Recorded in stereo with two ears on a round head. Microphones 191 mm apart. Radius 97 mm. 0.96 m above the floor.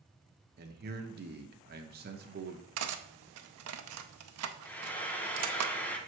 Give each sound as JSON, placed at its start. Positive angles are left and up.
{"t": 0.6, "sound": "a man speaking", "side_deg": -45, "distance_m": 0.9}
{"t": 2.8, "sound": "cutlery clinking", "side_deg": -70, "distance_m": 0.6}
{"t": 4.7, "sound": "frying", "side_deg": 10, "distance_m": 0.7}